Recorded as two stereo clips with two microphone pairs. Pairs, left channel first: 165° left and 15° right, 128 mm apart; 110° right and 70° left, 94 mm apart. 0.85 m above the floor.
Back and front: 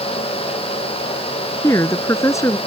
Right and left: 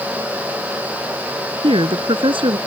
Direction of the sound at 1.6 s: 95° left.